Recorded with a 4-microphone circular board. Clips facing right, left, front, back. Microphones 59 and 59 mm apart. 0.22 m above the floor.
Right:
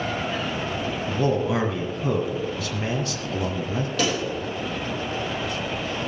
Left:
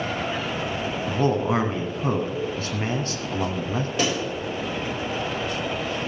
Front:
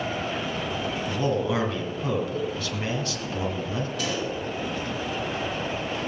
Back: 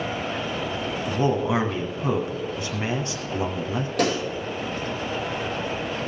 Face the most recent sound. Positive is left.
turn(degrees=155)